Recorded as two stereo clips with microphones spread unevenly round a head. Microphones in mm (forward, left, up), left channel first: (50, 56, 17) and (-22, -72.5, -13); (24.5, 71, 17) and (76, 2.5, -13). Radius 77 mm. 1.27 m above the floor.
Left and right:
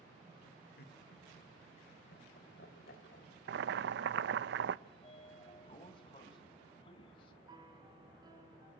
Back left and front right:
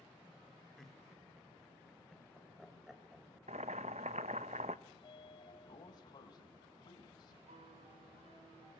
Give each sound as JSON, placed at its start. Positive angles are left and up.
{"t": 0.8, "sound": "laughter", "azimuth_deg": 45, "distance_m": 3.5}
{"t": 3.5, "sound": "boiling", "azimuth_deg": -105, "distance_m": 0.8}
{"t": 4.9, "sound": "a sliding door", "azimuth_deg": 115, "distance_m": 2.5}
{"t": 7.5, "sound": "a piano", "azimuth_deg": -55, "distance_m": 4.5}